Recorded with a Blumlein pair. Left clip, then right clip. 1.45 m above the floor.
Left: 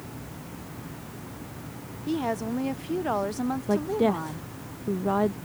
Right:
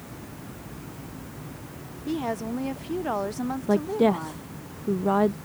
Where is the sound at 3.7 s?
10° right.